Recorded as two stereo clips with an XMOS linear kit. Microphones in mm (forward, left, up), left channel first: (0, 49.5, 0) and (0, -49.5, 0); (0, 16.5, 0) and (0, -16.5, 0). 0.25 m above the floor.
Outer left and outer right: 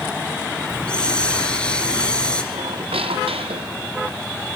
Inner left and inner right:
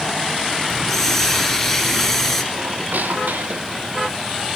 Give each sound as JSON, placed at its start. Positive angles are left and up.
{"t": 0.7, "sound": "a hiss", "side_deg": 10, "distance_m": 3.0}
{"t": 2.5, "sound": "a squeak", "side_deg": -90, "distance_m": 1.5}